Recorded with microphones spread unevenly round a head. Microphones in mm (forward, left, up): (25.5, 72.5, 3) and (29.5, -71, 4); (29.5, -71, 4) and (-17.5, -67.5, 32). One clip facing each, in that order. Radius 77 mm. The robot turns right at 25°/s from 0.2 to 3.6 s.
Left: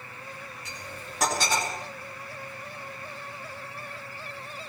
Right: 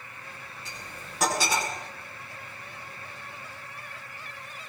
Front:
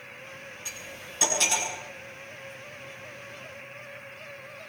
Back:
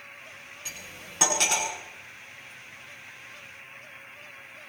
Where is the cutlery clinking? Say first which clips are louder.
Left 1 dB, front 2 dB; 170° left, 8 m; by 1.7 s 165° right, 8 m.